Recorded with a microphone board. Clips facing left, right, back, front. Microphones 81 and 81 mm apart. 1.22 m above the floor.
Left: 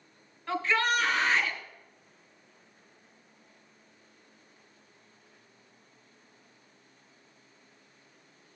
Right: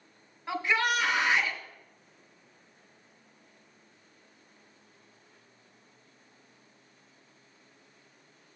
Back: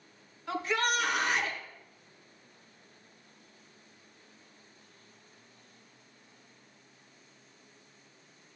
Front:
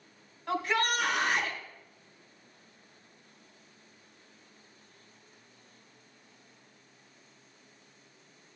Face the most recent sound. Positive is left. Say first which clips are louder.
# left 1 dB, front 1 dB
turn(degrees=-15)